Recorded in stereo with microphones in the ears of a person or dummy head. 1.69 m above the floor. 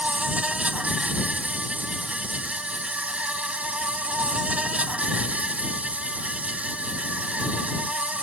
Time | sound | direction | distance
0.0 | an insect | 5° right (ahead or behind) | ?